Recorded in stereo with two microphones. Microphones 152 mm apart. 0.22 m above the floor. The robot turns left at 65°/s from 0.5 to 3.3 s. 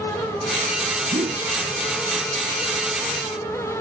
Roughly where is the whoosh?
Right.